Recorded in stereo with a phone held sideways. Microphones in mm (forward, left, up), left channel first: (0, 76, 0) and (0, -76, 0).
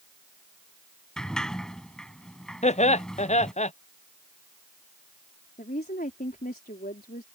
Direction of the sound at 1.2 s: 5° left (ahead or behind).